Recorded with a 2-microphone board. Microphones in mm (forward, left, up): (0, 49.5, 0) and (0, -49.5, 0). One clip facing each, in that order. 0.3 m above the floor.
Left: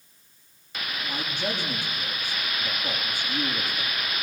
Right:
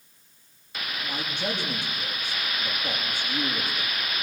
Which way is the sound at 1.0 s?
20° right (ahead or behind).